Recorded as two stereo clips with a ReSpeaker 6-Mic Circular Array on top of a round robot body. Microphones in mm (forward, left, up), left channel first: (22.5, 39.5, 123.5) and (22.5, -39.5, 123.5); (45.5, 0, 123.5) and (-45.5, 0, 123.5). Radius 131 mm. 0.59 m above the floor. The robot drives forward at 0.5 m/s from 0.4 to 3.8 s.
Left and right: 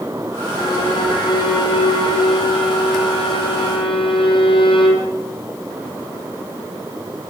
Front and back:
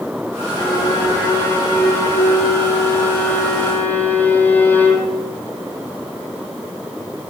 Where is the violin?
55° left, 5 m; by 5.1 s 75° left, 4.5 m.